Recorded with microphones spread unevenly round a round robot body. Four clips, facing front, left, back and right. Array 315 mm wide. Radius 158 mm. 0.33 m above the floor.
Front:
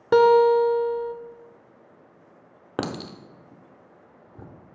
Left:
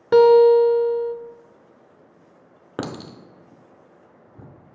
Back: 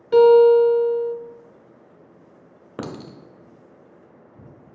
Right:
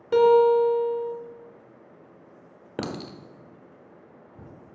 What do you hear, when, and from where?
0.1 s a guitar: 35° left, 0.5 m
2.8 s a clink: 20° left, 0.8 m